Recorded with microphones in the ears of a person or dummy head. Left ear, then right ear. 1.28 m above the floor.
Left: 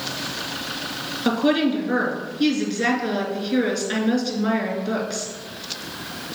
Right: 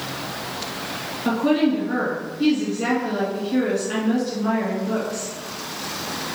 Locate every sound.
1.2 s a woman speaking: 30° left (ahead or behind), 2.0 m